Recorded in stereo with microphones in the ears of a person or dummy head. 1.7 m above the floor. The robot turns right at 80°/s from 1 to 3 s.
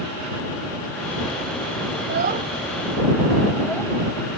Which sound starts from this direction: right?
A child speaking, at 2.0 s.